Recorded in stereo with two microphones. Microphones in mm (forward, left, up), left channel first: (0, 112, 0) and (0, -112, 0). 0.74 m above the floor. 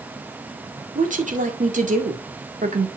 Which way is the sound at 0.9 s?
35° right (ahead or behind).